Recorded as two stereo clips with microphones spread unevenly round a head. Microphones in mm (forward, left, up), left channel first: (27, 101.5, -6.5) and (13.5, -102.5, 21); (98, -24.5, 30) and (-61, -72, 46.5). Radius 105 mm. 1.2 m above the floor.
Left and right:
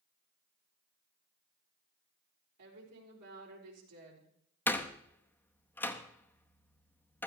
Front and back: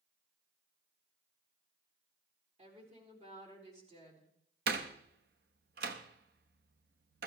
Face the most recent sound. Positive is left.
turn(degrees=170)